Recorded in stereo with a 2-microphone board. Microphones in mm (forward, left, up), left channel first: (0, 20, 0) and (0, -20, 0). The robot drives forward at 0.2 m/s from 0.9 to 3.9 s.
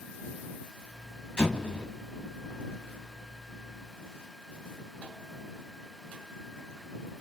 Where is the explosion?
20° left (ahead or behind), 2.5 m.